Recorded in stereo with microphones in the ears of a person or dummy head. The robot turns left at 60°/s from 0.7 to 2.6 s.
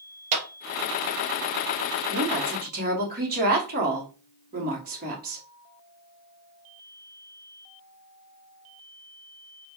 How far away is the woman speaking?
About 1.0 m.